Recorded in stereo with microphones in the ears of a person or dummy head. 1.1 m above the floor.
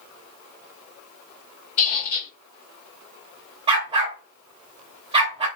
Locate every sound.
1.8 s a squeak: 55° left (ahead or behind), 1.2 m
3.7 s a dog barking: 25° right (ahead or behind), 0.8 m